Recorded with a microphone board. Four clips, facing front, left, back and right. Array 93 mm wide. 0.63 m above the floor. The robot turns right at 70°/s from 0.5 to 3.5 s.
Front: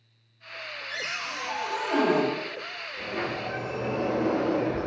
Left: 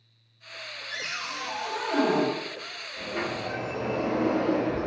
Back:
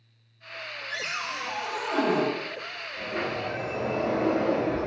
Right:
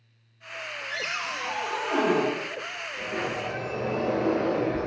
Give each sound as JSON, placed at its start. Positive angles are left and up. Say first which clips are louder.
{"t": 0.9, "sound": "a cupboard door", "louder": "right 3 dB, back 1 dB", "azimuth_deg": -110, "distance_m": 0.9}
{"t": 3.0, "sound": "a sliding door", "louder": "even, back 1 dB", "azimuth_deg": 130, "distance_m": 1.7}